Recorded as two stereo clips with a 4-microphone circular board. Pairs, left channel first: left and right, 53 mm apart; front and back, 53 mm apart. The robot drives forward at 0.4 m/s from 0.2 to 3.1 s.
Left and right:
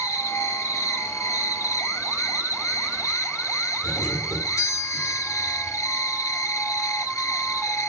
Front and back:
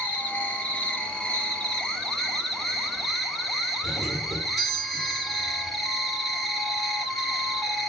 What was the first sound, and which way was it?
An insect, 65° left.